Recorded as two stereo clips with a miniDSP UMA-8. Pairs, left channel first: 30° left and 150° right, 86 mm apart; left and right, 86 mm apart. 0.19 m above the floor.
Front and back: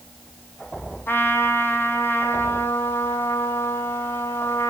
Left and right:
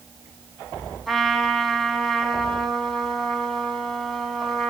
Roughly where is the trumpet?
Ahead.